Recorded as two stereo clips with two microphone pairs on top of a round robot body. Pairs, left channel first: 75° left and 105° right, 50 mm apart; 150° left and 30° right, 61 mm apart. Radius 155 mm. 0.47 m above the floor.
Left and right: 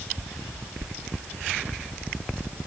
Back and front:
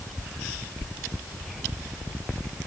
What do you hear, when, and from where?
Only background noise.